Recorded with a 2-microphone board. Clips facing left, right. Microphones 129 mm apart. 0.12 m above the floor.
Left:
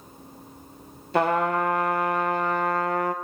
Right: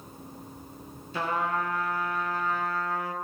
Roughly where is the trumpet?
Left.